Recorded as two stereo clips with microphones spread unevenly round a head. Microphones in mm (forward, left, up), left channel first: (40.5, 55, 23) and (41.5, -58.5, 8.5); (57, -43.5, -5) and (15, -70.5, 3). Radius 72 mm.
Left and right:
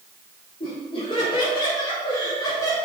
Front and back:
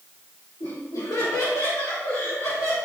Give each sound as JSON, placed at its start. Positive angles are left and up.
{"t": 0.6, "sound": "laughter", "azimuth_deg": 60, "distance_m": 4.5}